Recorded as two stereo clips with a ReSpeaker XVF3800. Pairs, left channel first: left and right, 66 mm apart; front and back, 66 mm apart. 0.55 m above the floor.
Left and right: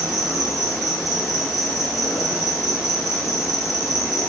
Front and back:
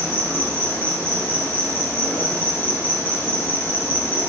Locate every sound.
0.0 s an insect: 60° left, 1.6 m